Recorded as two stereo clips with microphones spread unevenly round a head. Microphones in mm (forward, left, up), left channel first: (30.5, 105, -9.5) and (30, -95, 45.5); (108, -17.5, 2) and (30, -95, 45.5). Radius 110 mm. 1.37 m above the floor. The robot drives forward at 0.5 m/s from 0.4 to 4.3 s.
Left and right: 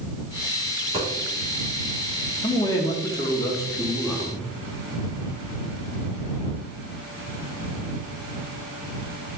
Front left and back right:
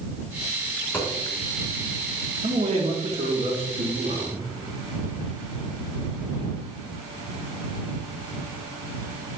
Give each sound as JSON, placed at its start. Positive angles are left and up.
{"t": 0.8, "sound": "a dropped coin", "azimuth_deg": -35, "distance_m": 3.5}
{"t": 2.4, "sound": "a man speaking", "azimuth_deg": 165, "distance_m": 1.3}